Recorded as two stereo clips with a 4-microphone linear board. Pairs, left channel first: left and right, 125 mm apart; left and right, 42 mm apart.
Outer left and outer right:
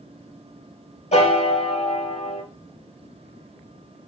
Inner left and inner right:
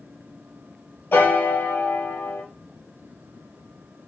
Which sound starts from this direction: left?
A piano, at 1.1 s.